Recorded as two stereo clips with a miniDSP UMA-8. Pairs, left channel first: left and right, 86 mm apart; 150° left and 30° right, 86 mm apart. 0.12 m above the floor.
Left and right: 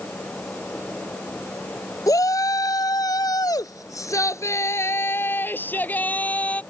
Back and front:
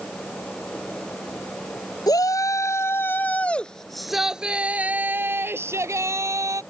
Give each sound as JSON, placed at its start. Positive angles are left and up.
{"t": 2.1, "sound": "a shout", "azimuth_deg": 125}